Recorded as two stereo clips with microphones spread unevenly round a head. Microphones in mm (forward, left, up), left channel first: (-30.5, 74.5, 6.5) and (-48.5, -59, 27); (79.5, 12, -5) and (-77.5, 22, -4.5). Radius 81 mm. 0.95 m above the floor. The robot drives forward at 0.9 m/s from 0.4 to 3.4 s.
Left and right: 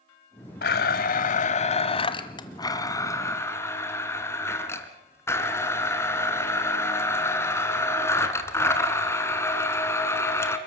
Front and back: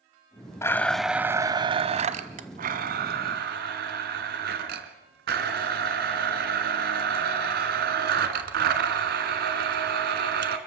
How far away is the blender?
About 1.2 m.